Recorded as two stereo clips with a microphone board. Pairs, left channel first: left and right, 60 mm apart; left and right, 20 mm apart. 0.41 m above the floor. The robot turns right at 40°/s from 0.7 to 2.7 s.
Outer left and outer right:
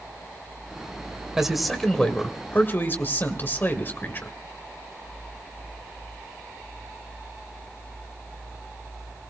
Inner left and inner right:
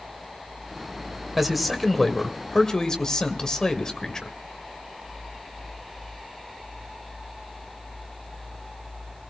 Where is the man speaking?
10° right, 1.9 m; by 4.3 s 45° left, 1.9 m.